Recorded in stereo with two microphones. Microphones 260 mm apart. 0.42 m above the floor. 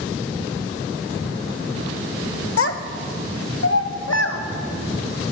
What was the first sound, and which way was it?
A child speaking, 55° left (ahead or behind).